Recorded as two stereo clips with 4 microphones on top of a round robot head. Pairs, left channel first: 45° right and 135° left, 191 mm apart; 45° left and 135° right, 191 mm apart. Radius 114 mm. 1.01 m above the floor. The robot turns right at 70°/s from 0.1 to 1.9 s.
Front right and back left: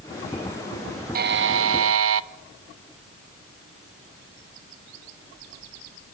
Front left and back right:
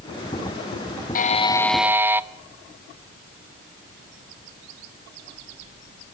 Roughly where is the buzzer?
Left.